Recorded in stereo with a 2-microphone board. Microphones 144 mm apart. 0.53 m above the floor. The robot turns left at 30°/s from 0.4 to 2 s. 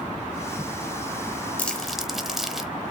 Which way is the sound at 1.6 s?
10° left (ahead or behind).